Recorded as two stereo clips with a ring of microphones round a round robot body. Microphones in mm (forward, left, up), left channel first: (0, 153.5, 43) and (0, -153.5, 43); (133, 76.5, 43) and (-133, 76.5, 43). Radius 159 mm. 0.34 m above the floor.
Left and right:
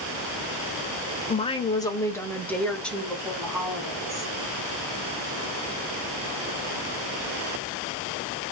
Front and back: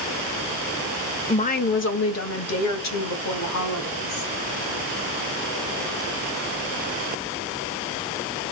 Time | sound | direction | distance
1.3 | a woman speaking | 45° left | 1.0 m